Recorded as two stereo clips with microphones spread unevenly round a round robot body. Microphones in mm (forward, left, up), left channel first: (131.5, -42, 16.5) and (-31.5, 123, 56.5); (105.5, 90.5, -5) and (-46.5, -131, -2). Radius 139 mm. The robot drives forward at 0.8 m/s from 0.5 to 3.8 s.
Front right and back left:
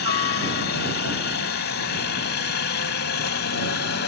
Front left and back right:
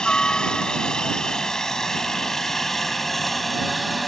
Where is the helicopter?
30° right; by 4.1 s 35° right.